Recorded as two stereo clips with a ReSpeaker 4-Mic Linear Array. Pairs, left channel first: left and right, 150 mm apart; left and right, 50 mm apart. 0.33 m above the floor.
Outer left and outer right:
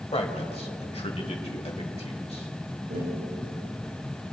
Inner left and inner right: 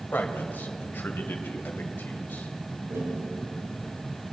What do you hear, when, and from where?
0.1 s a man speaking: 40° left (ahead or behind), 1.7 m
2.9 s tapping: 75° right (ahead or behind), 5.5 m